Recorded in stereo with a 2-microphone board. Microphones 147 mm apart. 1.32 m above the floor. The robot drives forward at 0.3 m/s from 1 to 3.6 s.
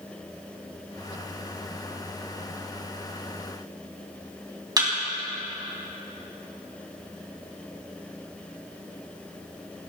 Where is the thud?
25° right (ahead or behind), 4 m.